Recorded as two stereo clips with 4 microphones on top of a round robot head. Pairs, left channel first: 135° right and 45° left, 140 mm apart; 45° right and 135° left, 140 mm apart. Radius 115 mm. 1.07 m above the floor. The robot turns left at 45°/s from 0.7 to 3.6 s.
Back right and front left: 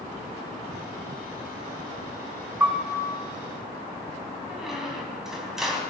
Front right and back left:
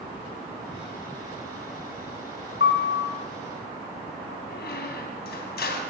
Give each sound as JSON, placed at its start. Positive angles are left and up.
{"t": 2.6, "sound": "a piano", "azimuth_deg": -30, "distance_m": 2.5}
{"t": 4.5, "sound": "a squeak", "azimuth_deg": -40, "distance_m": 3.0}